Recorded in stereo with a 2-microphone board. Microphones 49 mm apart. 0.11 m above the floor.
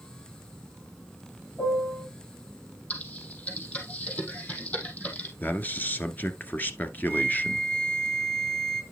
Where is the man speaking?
35° left (ahead or behind), 1.5 m.